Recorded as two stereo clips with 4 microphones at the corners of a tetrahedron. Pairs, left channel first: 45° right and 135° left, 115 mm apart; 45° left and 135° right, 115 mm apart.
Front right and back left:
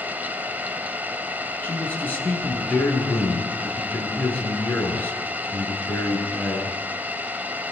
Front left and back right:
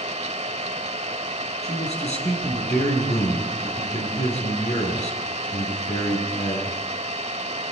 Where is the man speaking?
30° left, 8 m.